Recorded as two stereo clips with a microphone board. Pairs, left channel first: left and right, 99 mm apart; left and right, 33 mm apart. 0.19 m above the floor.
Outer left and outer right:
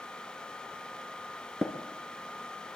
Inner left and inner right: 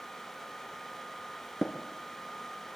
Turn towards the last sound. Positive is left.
turn(degrees=0)  # may be behind; listen again after turning